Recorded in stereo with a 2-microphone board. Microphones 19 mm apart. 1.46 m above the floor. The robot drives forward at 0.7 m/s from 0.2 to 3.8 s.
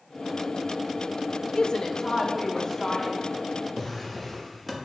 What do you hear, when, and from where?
1.5 s a woman speaking: 55° left (ahead or behind), 0.6 m; by 3.2 s 20° left (ahead or behind), 1.6 m
3.8 s a drawer: 5° left (ahead or behind), 1.1 m